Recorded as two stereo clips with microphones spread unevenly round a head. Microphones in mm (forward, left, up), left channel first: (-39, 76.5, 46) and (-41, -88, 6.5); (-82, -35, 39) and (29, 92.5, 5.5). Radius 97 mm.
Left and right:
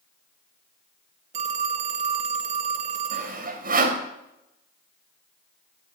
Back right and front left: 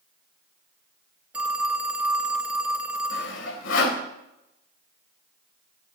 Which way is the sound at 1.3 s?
55° right.